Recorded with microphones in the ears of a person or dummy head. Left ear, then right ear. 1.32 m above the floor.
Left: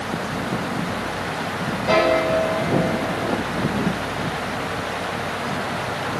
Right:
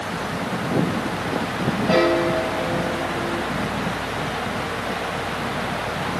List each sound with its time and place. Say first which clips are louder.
1.9 s a piano: left 2 dB; 50° left (ahead or behind), 6 m